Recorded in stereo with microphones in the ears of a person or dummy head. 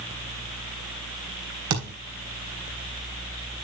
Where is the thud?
80° right, 3.5 m.